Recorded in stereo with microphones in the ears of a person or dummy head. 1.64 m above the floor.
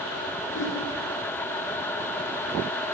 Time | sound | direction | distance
0.5 | a whoosh | 65° left (ahead or behind) | 1.9 m